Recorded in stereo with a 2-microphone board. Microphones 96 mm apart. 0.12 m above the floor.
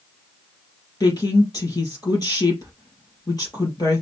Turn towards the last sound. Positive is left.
turn(degrees=40)  # may be behind; listen again after turning